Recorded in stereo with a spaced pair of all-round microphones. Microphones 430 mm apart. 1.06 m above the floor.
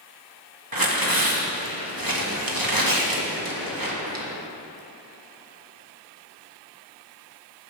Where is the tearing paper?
50° right (ahead or behind), 1.2 m.